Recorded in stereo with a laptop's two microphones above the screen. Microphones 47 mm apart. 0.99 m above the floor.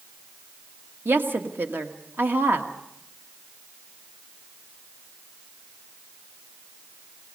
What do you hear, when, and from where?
1.1 s a woman speaking: 50° right (ahead or behind), 1.7 m